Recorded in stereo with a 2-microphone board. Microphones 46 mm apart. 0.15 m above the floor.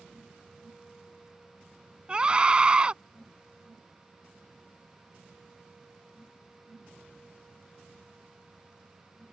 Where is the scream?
20° right (ahead or behind).